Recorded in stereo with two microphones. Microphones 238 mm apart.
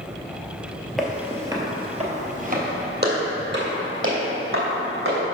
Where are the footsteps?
Centre (ahead or behind), 1.3 m; by 5.2 s 65° right (ahead or behind), 3 m.